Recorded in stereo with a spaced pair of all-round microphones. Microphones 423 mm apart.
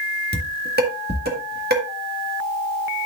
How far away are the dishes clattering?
About 1.8 m.